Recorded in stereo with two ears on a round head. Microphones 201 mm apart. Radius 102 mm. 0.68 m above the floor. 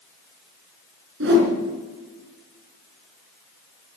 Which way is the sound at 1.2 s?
50° right (ahead or behind).